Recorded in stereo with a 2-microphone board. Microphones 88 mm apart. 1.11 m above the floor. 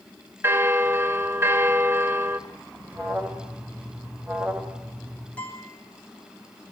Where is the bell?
30° right (ahead or behind), 1.5 m.